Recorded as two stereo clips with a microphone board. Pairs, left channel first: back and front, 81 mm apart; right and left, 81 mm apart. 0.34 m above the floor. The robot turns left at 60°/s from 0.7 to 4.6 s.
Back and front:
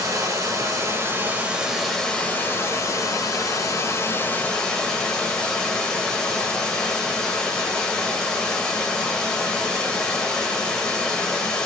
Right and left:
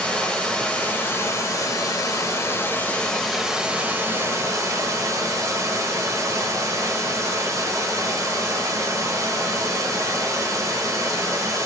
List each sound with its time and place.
0.0 s running water: 20° right, 0.8 m; by 11.7 s 105° left, 0.8 m